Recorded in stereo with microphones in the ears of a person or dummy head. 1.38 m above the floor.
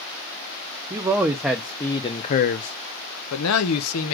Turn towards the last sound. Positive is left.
turn(degrees=75)  # may be behind; listen again after turning